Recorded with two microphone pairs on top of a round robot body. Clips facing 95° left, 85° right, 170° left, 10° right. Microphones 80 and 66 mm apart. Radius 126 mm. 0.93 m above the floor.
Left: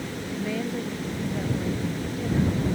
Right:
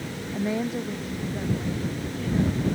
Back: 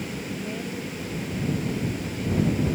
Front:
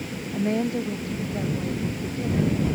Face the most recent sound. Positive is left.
turn(degrees=30)